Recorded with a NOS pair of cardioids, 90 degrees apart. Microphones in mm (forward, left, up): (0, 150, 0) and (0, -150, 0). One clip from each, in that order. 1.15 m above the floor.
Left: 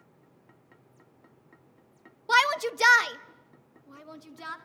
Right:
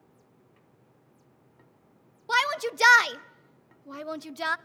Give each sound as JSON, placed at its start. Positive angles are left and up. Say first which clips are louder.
{"t": 2.3, "sound": "a shout", "louder": "left 3 dB", "azimuth_deg": 15, "distance_m": 0.8}